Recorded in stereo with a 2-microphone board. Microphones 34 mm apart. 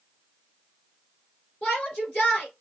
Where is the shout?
35° left (ahead or behind), 2.5 m.